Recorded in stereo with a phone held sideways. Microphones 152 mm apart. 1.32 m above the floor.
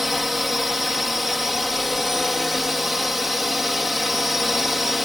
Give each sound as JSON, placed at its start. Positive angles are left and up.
{"t": 0.0, "sound": "a drone", "side_deg": 0}